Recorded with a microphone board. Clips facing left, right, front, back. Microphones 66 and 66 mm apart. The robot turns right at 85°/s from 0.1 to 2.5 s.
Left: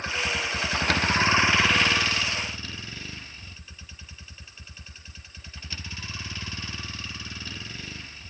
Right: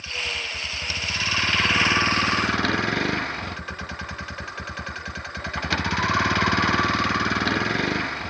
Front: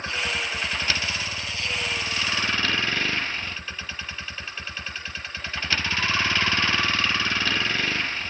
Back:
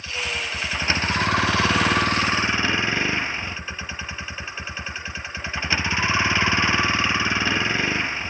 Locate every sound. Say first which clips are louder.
0.0 s a vehicle: left 3 dB, front 1 dB; 50° left; by 8.3 s 105° right